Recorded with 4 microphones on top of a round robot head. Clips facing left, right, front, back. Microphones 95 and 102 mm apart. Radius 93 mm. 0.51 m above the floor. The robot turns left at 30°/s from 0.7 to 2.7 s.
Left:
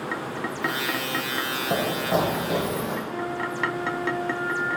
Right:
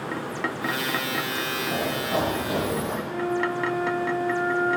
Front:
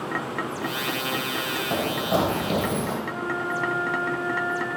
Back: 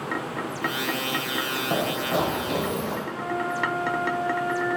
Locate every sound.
1.7 s running footsteps: 105° left, 0.6 m; by 3.0 s 15° right, 0.9 m
3.0 s a flute: straight behind, 1.4 m